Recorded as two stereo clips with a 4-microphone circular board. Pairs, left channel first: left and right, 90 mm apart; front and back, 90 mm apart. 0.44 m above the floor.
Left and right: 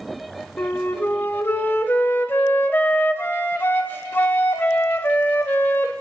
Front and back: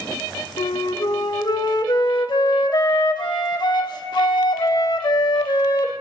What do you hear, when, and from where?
0.6 s a flute: 25° left, 0.7 m